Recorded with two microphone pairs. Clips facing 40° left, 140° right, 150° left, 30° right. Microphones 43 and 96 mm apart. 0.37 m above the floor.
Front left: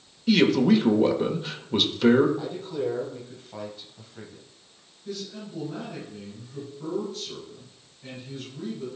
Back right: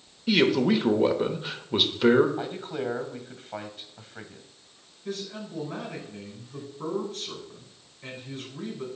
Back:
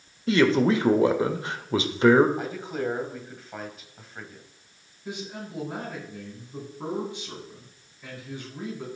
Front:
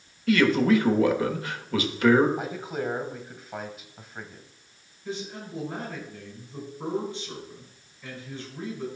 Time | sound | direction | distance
0.3 | a man speaking | 145° left | 1.0 m
2.4 | a man speaking | 110° right | 1.8 m
5.0 | a man speaking | 135° right | 4 m